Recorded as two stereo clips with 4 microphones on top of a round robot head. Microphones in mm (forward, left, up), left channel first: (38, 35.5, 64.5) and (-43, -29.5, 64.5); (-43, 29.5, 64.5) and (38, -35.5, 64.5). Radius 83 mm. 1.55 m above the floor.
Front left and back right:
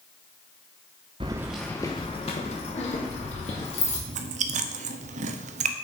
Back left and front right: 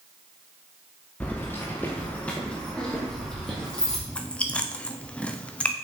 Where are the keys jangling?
150° right, 0.6 m; by 4.0 s 60° left, 2 m.